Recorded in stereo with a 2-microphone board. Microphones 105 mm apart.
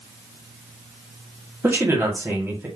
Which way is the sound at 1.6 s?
20° right (ahead or behind).